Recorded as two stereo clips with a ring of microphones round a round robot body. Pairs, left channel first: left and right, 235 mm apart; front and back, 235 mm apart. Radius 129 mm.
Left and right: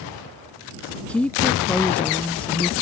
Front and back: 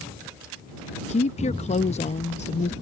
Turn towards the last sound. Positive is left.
turn(degrees=10)